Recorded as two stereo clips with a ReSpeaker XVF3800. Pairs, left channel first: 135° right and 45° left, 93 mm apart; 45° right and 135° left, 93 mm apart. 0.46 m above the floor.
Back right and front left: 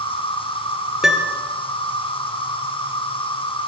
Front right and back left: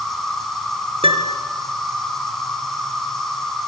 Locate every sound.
0.0 s an insect: 130° right, 5 m
1.0 s a piano: 130° left, 3 m